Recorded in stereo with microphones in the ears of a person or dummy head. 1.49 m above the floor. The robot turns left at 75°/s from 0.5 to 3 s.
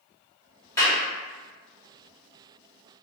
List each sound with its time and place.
0.8 s a clap: 15° left (ahead or behind), 1.4 m; by 1.0 s 30° left (ahead or behind), 1.4 m